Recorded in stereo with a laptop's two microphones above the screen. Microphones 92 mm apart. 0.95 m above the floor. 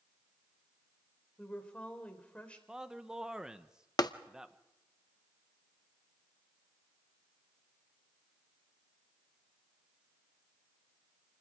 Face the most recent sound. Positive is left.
turn(degrees=45)  # may be behind; listen again after turning